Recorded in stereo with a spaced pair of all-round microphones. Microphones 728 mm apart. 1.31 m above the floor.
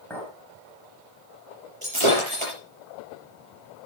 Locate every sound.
0.1 s a clink: 5° left (ahead or behind), 5 m
1.8 s breaking glass: 40° right (ahead or behind), 6.5 m